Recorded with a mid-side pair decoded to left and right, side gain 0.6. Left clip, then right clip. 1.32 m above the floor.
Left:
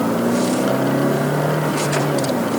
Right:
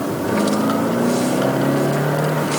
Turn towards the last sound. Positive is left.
No sound to turn to.